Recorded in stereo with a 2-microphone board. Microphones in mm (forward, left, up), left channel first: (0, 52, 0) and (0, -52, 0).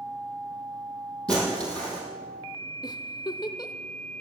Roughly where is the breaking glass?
Centre.